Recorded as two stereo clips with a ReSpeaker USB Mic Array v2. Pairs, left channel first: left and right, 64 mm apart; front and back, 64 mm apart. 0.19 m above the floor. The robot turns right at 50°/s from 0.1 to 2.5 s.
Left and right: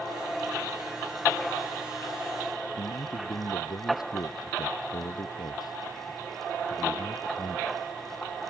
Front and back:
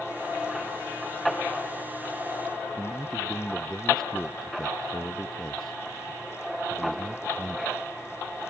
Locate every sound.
2.8 s a man speaking: 80° left